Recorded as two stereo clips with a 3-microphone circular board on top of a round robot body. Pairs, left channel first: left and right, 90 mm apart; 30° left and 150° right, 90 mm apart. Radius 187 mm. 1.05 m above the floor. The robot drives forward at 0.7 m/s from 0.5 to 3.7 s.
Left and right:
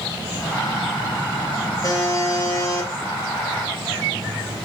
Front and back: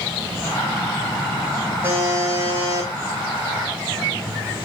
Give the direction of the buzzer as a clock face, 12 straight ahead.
7 o'clock.